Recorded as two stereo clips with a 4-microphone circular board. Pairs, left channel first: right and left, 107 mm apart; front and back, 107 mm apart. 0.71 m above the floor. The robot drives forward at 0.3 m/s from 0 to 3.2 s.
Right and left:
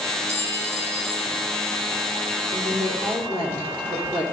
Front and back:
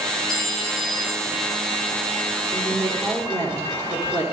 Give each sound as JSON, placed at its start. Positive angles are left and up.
{"t": 0.3, "sound": "a clink", "azimuth_deg": 85, "distance_m": 3.0}
{"t": 2.5, "sound": "a woman speaking", "azimuth_deg": 120, "distance_m": 2.0}